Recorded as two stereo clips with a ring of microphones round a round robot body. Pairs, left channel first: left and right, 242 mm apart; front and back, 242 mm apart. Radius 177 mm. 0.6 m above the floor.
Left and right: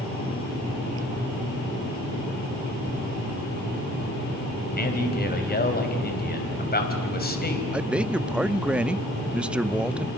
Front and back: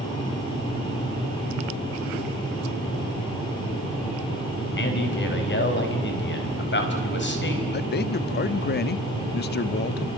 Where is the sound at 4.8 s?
40° left, 4 m.